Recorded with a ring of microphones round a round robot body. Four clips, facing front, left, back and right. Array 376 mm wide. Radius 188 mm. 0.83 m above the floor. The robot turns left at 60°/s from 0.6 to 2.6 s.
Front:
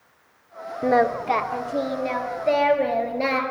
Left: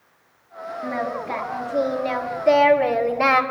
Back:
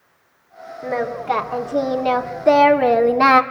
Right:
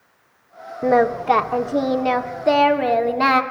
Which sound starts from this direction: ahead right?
Singing, at 0.8 s.